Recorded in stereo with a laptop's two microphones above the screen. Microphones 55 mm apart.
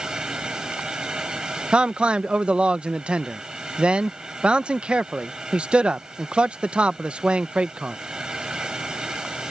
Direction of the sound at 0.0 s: 15° right (ahead or behind).